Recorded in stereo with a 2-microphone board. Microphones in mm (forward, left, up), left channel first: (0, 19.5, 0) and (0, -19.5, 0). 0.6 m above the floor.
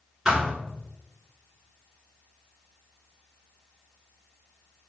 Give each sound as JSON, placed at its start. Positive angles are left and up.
{"t": 0.2, "sound": "a thud", "side_deg": -10, "distance_m": 1.6}